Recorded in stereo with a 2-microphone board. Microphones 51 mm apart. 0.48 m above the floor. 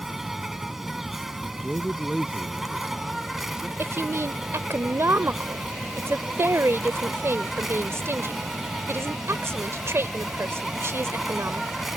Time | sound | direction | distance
0.0 | an insect | 5° right (ahead or behind) | ?
1.4 | a man speaking | 20° right (ahead or behind) | ?
3.8 | a woman speaking | 60° right (ahead or behind) | ?